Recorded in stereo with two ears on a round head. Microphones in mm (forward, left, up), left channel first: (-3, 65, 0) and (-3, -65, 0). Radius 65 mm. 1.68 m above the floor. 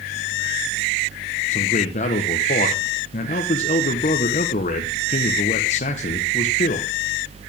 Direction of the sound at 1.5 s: 50° left (ahead or behind).